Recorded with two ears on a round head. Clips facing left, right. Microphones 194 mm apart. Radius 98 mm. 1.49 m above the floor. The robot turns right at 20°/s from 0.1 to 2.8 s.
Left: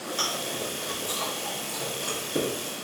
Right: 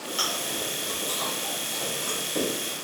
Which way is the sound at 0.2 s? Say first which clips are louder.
Left 1 dB; 10° right (ahead or behind).